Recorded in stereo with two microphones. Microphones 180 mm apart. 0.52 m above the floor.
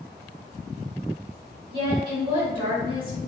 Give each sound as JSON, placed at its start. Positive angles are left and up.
{"t": 1.7, "sound": "a woman speaking", "side_deg": -30, "distance_m": 1.3}